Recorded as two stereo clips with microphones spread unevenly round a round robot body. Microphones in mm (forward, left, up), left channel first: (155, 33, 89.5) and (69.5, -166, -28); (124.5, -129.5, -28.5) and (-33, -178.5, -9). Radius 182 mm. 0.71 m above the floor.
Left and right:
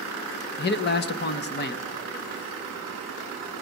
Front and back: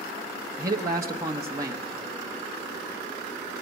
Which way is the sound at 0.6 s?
130° left.